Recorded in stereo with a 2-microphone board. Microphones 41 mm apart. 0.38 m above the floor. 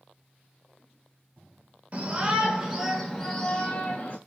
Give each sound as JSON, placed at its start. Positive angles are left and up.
{"t": 1.9, "sound": "a shout", "side_deg": -35, "distance_m": 1.0}